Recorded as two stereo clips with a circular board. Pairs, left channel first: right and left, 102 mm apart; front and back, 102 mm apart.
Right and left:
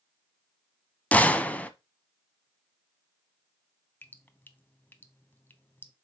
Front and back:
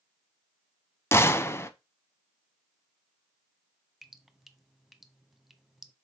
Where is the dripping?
95° right, 0.7 m.